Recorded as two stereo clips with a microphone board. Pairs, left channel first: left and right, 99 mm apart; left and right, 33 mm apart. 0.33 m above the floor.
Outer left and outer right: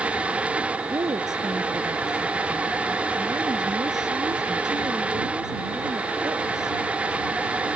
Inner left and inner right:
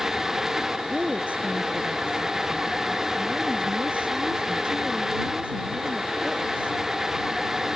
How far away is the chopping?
I don't hear chopping.